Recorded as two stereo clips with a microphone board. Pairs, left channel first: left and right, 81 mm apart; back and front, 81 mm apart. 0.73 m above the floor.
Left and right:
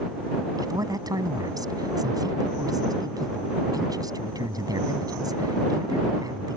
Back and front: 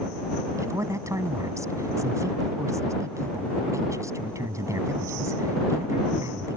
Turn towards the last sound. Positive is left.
turn(degrees=-50)